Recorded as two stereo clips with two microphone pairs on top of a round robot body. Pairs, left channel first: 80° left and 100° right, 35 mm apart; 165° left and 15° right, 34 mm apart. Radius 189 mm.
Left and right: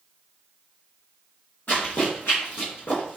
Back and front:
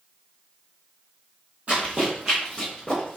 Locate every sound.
1.7 s running footsteps: 30° left, 1.5 m; by 3.2 s 110° left, 1.1 m